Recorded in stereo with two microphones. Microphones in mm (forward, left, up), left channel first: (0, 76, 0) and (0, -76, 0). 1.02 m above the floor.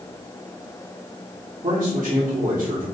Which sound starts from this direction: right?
A man speaking, at 1.6 s.